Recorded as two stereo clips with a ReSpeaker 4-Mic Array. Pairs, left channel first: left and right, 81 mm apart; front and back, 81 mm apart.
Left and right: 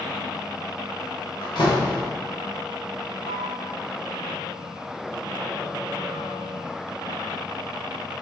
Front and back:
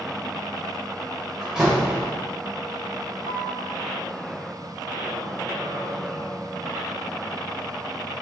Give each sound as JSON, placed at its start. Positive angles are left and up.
{"t": 1.4, "sound": "a door slam", "azimuth_deg": 100, "distance_m": 2.5}
{"t": 3.2, "sound": "a flute", "azimuth_deg": 140, "distance_m": 3.0}